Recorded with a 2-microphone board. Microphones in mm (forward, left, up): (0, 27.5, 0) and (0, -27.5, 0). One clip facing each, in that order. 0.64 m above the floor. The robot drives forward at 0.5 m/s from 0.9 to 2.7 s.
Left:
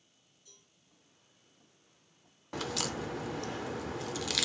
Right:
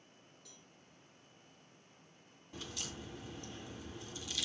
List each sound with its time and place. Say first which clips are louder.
0.5 s a cowbell: right 1 dB; 85° right, 6 m
2.5 s a crack: left 11 dB; 80° left, 0.6 m; by 4.5 s 85° left, 0.5 m